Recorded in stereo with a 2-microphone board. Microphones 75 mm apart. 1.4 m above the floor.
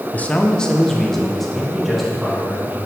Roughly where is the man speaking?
Left.